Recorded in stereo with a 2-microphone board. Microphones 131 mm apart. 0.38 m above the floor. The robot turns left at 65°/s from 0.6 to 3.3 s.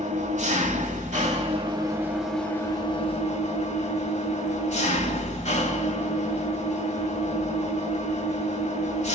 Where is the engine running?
70° right, 1.2 m; by 9.2 s 115° left, 1.2 m.